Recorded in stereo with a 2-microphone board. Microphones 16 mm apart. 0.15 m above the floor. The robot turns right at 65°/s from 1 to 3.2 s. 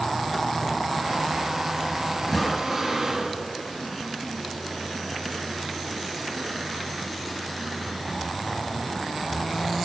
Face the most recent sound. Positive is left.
turn(degrees=-150)